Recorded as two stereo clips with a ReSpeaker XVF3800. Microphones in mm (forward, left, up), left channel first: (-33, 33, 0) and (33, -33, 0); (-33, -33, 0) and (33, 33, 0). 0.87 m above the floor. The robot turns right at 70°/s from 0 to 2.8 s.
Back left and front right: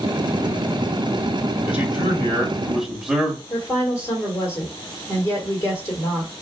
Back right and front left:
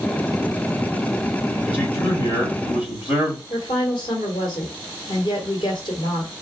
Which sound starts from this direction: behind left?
A man speaking, at 1.6 s.